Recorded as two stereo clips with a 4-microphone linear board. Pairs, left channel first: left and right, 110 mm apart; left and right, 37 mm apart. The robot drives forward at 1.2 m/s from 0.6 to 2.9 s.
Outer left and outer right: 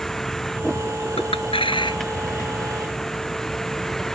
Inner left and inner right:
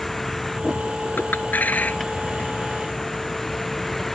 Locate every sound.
0.0 s a vehicle: 5° left (ahead or behind)
1.2 s a clink: 70° left (ahead or behind); by 2.5 s 35° left (ahead or behind)